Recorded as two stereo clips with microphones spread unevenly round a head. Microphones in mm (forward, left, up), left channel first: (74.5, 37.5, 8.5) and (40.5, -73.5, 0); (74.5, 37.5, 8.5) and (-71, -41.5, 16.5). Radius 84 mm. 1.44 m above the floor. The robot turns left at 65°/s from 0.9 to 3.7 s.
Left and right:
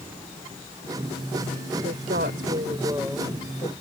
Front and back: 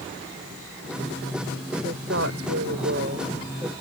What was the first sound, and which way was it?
A woman speaking, 110° right.